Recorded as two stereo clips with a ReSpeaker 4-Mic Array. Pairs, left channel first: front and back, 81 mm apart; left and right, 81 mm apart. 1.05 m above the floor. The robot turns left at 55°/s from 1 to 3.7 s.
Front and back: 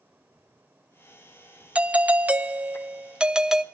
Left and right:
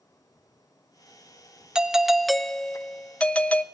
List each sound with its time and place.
1.8 s a doorbell: 150° right, 0.5 m; by 3.6 s 105° left, 0.5 m